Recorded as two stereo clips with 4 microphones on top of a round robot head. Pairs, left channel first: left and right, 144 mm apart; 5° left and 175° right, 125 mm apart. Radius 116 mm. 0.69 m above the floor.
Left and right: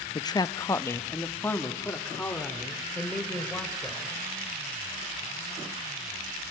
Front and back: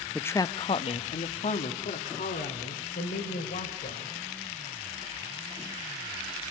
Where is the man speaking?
80° left, 0.6 m; by 4.1 s 5° left, 3.5 m.